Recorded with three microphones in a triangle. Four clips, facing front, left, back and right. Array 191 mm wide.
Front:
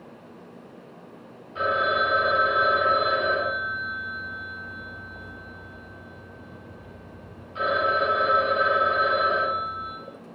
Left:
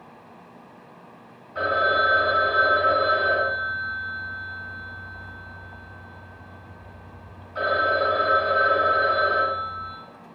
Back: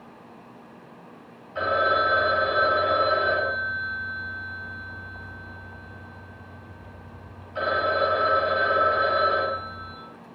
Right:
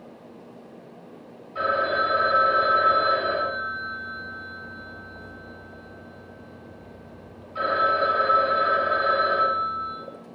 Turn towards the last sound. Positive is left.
turn(degrees=155)